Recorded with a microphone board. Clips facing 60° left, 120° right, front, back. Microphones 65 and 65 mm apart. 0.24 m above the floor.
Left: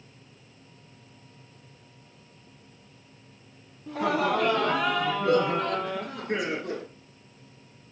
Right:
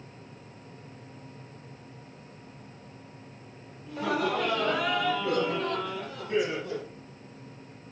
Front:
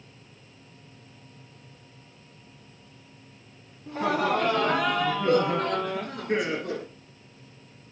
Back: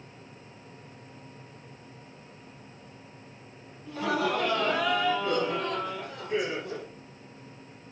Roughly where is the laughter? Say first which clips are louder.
Left 3 dB, front 3 dB; ahead left.